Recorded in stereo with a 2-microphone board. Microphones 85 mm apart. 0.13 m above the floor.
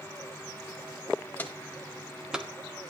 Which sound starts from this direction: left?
Footsteps, at 1.4 s.